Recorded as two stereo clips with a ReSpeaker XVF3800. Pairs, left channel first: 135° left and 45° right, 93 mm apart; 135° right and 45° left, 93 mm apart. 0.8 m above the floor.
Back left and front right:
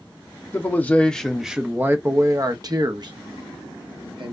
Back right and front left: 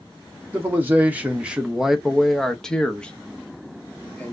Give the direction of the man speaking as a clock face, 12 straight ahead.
9 o'clock.